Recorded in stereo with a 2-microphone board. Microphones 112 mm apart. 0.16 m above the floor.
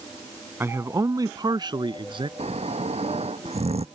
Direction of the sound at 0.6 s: 20° right (ahead or behind).